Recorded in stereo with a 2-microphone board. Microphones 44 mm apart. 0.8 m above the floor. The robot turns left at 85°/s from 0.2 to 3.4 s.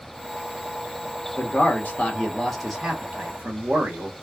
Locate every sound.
1.4 s a man speaking: 105° left, 1.3 m; by 4.1 s 70° right, 1.3 m